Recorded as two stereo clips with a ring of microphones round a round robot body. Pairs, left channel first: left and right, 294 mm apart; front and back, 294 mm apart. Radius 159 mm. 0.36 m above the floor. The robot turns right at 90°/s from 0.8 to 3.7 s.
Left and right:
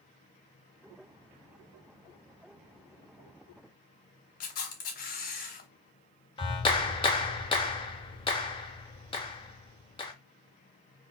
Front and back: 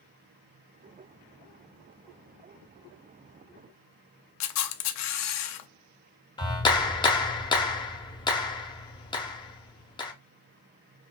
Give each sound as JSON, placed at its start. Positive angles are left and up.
{"t": 4.4, "sound": "a camera shutter", "azimuth_deg": 30, "distance_m": 0.5}
{"t": 6.4, "sound": "a clap", "azimuth_deg": 50, "distance_m": 0.7}